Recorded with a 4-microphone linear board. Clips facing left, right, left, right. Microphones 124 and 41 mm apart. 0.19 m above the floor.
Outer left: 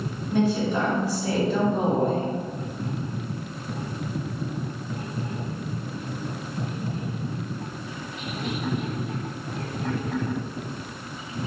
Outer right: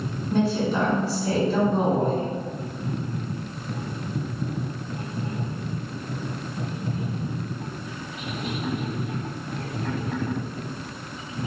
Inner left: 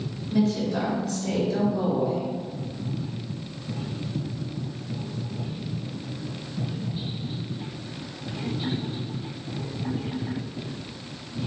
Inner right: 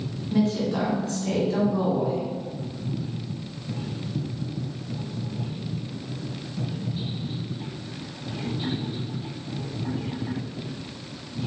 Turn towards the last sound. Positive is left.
turn(degrees=-35)  # may be behind; listen again after turning